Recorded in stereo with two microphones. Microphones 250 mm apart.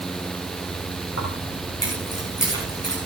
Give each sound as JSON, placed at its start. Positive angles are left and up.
{"t": 1.2, "sound": "keys jangling", "side_deg": 80, "distance_m": 8.0}